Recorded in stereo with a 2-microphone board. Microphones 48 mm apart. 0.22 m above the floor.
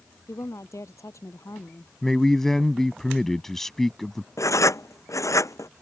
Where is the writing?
85° left.